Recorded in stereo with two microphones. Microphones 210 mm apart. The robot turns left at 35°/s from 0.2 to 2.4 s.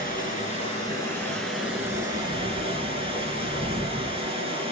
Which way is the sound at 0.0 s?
45° left.